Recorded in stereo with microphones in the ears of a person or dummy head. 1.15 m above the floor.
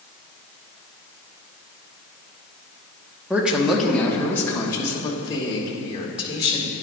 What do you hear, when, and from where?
3.3 s a woman speaking: 5° right (ahead or behind), 1.1 m; by 6.7 s 30° left (ahead or behind), 2.5 m